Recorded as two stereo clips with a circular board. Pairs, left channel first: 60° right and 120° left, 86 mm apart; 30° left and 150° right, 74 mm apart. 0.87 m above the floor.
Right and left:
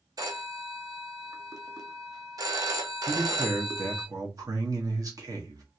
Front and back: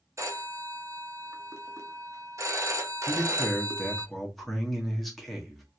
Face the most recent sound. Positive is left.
turn(degrees=120)